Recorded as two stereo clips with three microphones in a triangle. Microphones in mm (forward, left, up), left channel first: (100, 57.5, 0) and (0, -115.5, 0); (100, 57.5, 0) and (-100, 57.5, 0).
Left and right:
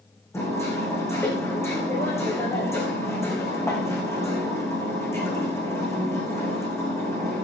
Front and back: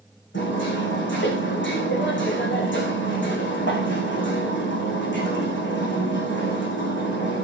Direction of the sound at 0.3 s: 15° right.